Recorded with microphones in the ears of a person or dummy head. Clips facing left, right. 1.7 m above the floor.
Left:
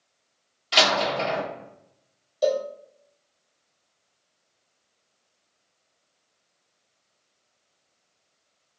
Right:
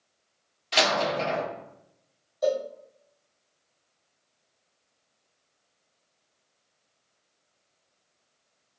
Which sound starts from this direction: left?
A cowbell, at 2.4 s.